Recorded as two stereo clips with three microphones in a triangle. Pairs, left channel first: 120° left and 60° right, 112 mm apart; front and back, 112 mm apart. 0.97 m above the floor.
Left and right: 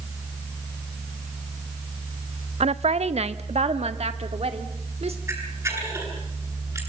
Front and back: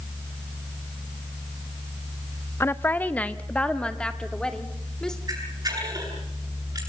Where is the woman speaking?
65° right, 0.6 m; by 5.2 s 85° right, 3 m.